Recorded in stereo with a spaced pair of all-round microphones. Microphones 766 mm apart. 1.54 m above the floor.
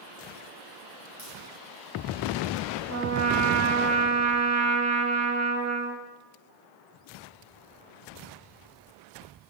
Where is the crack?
25° right (ahead or behind), 5 m.